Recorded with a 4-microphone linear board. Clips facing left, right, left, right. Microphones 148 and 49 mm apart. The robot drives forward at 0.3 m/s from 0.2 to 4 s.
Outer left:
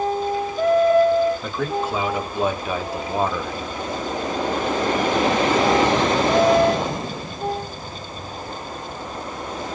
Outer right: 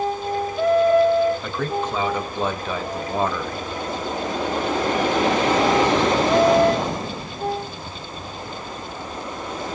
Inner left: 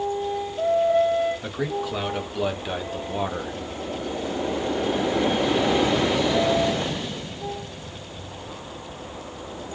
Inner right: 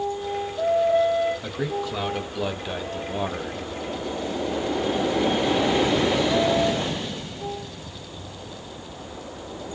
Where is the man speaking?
5° left (ahead or behind), 1.5 m; by 3.6 s 10° left (ahead or behind), 0.9 m.